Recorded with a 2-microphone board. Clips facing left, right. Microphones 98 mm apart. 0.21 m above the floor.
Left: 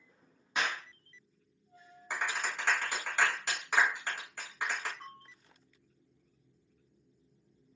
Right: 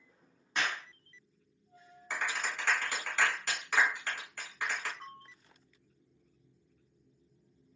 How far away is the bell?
About 1.4 m.